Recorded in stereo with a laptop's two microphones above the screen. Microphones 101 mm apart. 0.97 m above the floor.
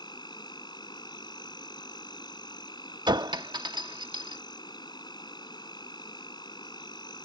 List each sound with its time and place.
0.0 s an insect: 50° left (ahead or behind)
3.1 s a clink: 50° right (ahead or behind)